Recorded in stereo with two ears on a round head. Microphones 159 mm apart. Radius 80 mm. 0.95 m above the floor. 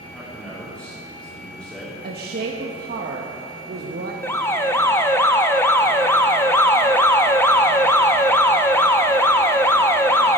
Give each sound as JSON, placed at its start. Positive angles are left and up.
{"t": 0.1, "sound": "a man speaking", "side_deg": 5, "distance_m": 2.5}
{"t": 2.0, "sound": "a woman speaking", "side_deg": -55, "distance_m": 0.9}
{"t": 4.2, "sound": "an alarm", "side_deg": 15, "distance_m": 0.6}